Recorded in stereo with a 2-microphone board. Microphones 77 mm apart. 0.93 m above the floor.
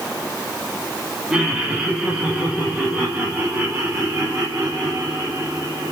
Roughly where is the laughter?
Centre.